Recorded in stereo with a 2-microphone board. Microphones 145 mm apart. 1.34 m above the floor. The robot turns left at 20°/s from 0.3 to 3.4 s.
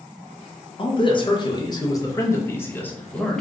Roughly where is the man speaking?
Ahead left.